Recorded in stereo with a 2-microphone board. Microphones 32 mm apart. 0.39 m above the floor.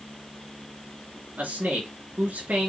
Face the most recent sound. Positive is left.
turn(degrees=-80)